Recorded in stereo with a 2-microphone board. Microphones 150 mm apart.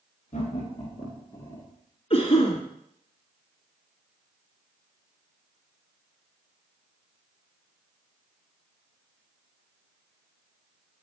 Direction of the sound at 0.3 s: 45° left (ahead or behind).